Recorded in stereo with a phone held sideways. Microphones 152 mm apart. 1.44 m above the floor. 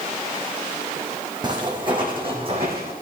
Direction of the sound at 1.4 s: 30° right (ahead or behind).